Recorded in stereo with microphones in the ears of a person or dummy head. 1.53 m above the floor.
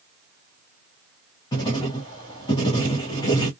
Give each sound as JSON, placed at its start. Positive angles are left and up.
{"t": 1.5, "sound": "writing", "side_deg": 20, "distance_m": 0.9}